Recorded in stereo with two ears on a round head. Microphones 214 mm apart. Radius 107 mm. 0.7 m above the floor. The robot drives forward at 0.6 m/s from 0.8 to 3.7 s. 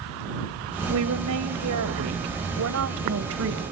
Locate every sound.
0.9 s a woman speaking: 80° right, 3 m; by 3.6 s 65° right (ahead or behind), 3 m